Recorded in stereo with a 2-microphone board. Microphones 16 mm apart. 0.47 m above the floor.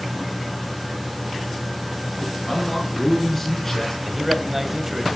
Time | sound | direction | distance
2.5 | a man speaking | 15° left (ahead or behind) | 6.5 m
4.0 | a man speaking | 20° right (ahead or behind) | 2.5 m